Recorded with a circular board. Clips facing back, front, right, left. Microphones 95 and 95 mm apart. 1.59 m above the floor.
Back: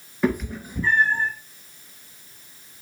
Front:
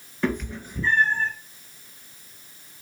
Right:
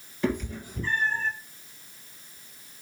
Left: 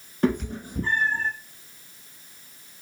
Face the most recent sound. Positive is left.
turn(degrees=110)